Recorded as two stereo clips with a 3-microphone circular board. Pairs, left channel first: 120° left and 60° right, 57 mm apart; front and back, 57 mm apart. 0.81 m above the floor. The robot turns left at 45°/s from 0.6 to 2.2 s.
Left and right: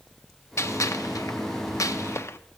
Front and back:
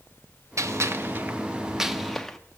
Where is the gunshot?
155° left, 0.5 m; by 2.4 s 80° left, 0.5 m.